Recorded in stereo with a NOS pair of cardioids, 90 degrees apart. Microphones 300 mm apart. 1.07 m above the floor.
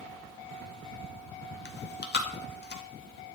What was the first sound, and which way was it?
Chewing, 35° left.